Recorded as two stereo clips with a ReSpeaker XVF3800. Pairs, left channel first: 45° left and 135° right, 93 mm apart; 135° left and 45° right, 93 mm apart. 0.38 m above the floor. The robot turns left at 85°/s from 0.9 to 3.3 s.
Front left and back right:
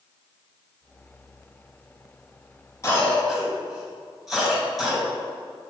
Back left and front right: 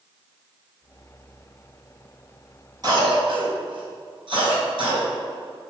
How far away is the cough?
About 2.5 m.